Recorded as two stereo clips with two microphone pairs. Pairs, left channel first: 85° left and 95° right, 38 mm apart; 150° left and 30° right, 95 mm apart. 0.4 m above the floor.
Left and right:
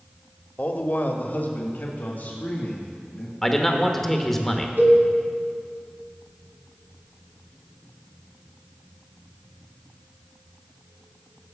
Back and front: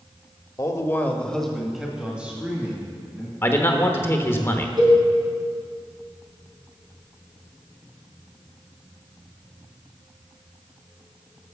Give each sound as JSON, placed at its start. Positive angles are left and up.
{"t": 0.6, "sound": "a man speaking", "azimuth_deg": 110, "distance_m": 1.1}
{"t": 3.4, "sound": "a man speaking", "azimuth_deg": 160, "distance_m": 1.1}
{"t": 4.8, "sound": "a cowbell", "azimuth_deg": -65, "distance_m": 3.5}